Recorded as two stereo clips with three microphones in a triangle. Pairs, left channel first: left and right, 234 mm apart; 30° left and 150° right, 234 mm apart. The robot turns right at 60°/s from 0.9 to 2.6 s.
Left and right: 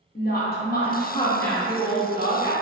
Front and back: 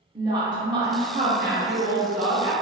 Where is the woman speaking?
140° left, 0.6 m; by 2.5 s 120° right, 0.6 m.